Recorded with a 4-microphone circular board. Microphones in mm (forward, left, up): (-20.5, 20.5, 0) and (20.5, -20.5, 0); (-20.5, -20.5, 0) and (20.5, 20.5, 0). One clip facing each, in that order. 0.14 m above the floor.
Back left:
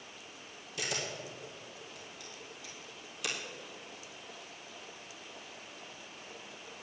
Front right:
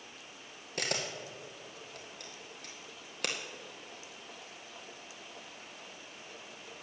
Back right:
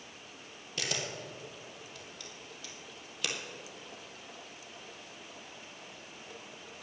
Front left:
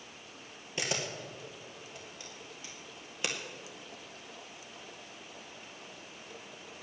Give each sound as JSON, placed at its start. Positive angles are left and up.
{"t": 0.8, "sound": "a camera shutter", "azimuth_deg": -20, "distance_m": 2.0}